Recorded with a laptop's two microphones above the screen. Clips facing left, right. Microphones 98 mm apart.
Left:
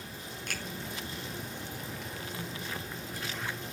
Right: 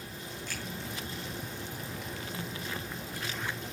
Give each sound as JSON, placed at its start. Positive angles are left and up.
{"t": 0.5, "sound": "a finger snap", "side_deg": 65, "distance_m": 8.0}